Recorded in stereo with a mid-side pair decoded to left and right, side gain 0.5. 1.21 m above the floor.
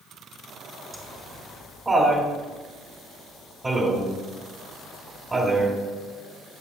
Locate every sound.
0.9 s laughter: 20° right, 1.9 m